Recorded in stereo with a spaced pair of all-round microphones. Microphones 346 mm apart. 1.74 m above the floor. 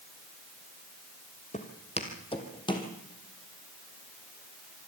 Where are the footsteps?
20° left (ahead or behind), 2.5 m; by 2.9 s 10° left (ahead or behind), 3 m.